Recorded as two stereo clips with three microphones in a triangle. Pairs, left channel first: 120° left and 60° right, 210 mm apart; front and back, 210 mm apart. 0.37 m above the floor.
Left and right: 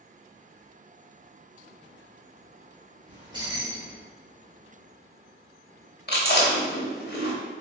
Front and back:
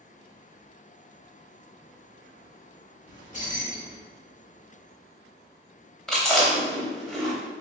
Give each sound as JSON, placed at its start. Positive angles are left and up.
{"t": 3.1, "sound": "keys jangling", "azimuth_deg": -5, "distance_m": 0.9}
{"t": 6.1, "sound": "chewing", "azimuth_deg": 85, "distance_m": 0.7}